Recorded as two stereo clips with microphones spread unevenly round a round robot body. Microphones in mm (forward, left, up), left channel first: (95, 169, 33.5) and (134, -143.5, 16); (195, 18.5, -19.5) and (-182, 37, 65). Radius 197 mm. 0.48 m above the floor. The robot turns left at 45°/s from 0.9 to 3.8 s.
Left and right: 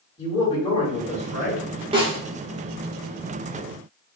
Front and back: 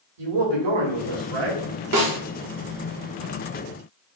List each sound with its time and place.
0.2 s a man speaking: 175° left, 2 m; by 1.6 s 145° left, 2 m
1.9 s a snare drum: 140° right, 1.4 m; by 2.2 s 155° right, 1.4 m